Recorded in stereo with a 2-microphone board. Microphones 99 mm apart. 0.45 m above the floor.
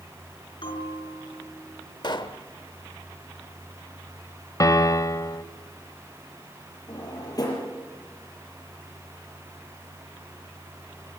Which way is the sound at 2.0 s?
50° left (ahead or behind).